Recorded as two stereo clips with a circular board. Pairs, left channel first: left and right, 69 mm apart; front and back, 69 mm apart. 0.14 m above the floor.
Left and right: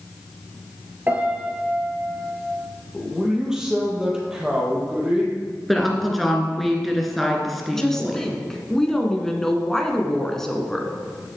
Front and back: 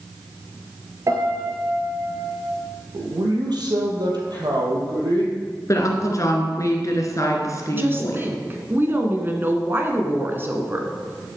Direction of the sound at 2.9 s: 170° right.